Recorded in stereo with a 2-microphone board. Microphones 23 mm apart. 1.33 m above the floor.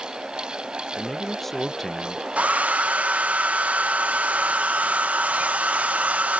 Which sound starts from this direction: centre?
A man speaking, at 1.0 s.